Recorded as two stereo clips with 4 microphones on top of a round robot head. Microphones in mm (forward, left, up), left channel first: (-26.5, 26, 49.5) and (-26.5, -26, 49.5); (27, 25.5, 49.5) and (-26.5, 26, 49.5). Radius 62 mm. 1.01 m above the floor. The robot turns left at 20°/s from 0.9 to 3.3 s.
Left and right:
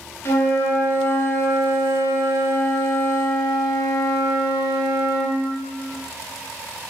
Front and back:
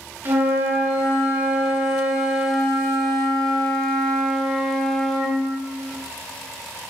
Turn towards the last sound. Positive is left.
turn(degrees=80)